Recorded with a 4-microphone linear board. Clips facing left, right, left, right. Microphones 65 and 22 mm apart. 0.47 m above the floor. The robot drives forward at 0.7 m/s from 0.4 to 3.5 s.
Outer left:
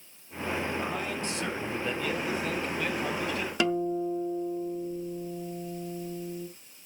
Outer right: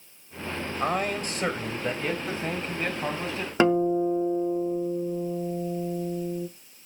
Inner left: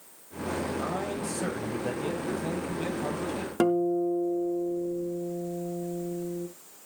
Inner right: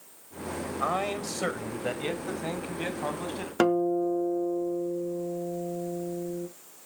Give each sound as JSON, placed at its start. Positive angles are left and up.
{"t": 0.8, "sound": "a man speaking", "side_deg": -50, "distance_m": 2.0}
{"t": 3.6, "sound": "a guitar", "side_deg": -35, "distance_m": 0.6}